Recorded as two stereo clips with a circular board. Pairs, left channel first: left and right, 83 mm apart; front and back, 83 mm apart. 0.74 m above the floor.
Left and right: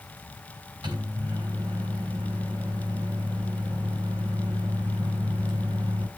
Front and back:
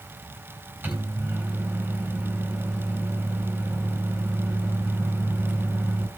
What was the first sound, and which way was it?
A microwave, 115° right.